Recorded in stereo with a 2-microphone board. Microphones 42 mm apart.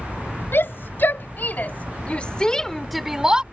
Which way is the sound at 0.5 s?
60° left (ahead or behind).